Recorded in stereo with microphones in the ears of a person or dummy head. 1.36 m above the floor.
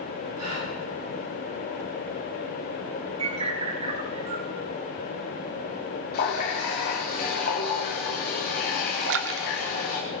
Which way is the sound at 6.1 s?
55° left (ahead or behind).